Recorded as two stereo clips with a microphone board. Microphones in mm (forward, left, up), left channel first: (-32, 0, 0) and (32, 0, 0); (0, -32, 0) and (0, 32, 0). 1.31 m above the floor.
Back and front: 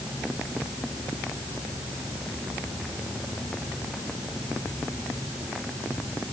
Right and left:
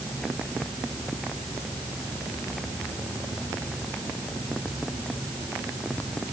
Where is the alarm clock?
I don't hear an alarm clock.